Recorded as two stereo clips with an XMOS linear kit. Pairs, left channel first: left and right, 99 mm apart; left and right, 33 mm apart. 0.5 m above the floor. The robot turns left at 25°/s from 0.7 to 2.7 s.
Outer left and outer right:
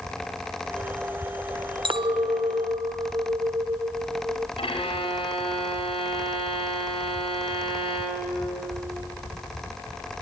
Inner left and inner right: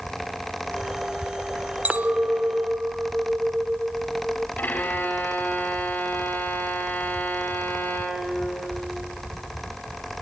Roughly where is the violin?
Left.